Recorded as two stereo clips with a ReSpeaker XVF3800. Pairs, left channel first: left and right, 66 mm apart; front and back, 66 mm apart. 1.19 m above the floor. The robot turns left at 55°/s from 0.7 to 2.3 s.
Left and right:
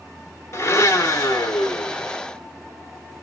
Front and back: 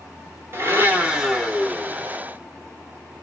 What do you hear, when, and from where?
0.5 s a blender: 130° left, 1.2 m; by 2.2 s 50° left, 1.2 m